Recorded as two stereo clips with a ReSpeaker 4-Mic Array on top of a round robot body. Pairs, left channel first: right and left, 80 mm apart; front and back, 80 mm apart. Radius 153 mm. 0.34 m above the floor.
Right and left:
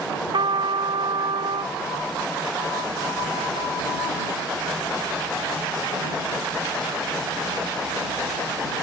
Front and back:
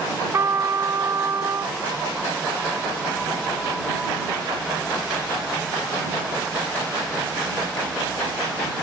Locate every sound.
0.3 s a trumpet: 120° left